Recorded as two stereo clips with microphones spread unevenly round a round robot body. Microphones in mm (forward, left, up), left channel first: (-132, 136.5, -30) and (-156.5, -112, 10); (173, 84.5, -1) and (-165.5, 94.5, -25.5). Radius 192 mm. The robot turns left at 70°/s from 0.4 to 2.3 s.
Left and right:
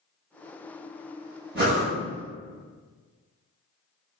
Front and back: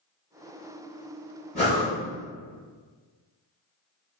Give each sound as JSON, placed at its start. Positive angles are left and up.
{"t": 1.6, "sound": "breathing", "azimuth_deg": -60, "distance_m": 0.6}